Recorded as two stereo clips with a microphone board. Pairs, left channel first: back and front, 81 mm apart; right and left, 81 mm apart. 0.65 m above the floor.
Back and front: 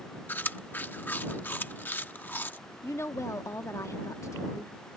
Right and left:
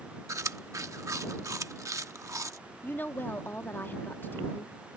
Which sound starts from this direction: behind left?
Chewing, at 0.3 s.